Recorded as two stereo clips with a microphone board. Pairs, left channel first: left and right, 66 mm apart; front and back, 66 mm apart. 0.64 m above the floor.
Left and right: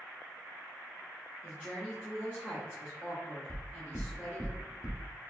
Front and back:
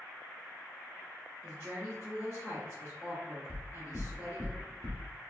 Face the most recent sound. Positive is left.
turn(degrees=-5)